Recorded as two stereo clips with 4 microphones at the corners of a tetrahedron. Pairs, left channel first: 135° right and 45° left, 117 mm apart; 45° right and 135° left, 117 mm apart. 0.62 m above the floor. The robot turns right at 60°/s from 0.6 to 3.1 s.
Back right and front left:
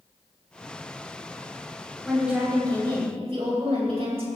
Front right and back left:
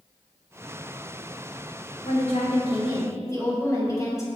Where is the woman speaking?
50° right, 3.5 m; by 4.3 s 15° left, 3.5 m.